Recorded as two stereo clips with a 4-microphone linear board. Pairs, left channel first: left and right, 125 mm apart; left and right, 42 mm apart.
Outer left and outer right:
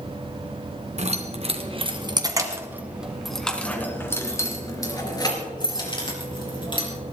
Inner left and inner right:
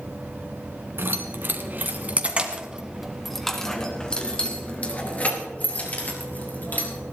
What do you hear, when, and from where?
1.0 s keys jangling: 60° right (ahead or behind), 2 m; by 6.9 s 40° left (ahead or behind), 4.5 m